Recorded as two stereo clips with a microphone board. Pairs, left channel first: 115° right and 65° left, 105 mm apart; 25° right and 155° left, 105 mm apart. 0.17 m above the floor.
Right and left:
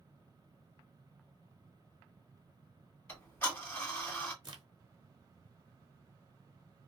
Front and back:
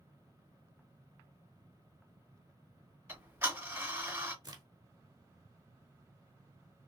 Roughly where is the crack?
Left.